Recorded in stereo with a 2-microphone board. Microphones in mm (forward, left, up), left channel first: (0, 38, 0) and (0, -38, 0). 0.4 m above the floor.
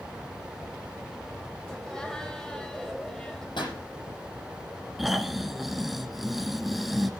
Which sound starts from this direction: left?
A pop, at 3.6 s.